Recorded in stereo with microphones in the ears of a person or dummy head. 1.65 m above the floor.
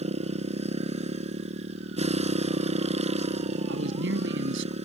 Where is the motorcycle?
40° right (ahead or behind).